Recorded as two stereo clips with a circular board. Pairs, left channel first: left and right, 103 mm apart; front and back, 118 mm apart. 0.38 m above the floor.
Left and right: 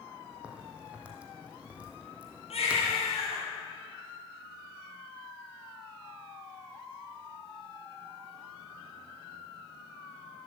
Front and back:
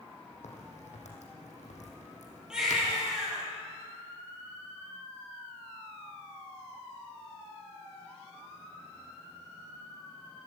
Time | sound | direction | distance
0.4 | a crack | 15° right | 4 m
2.5 | a baby crying | 95° left | 8 m